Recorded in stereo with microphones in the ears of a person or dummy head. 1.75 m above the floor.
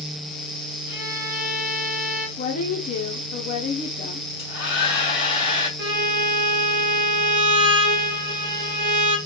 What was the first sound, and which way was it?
A violin, 30° left (ahead or behind).